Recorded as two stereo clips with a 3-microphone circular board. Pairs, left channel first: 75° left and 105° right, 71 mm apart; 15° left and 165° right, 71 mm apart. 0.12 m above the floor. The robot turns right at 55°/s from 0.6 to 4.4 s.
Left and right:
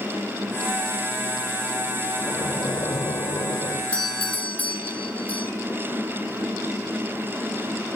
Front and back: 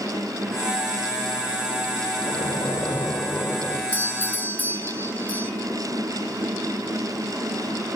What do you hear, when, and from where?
2.2 s a splash: 15° left, 2 m; by 3.8 s 105° left, 2 m
3.9 s a doorbell: 15° left, 2.0 m; by 5.5 s 45° left, 2.0 m